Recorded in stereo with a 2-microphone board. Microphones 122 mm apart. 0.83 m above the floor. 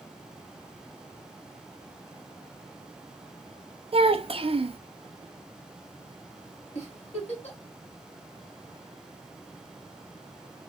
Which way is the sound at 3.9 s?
50° right (ahead or behind).